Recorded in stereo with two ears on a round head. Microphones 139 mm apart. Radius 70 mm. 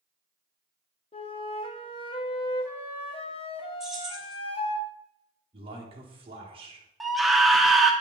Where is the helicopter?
No helicopter in this recording.